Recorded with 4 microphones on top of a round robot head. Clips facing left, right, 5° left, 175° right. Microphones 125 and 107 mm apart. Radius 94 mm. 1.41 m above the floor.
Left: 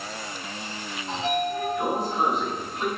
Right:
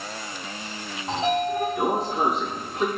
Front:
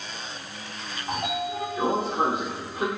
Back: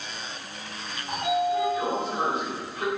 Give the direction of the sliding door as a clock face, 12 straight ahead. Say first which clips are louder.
Right 3 dB, back 5 dB; 2 o'clock.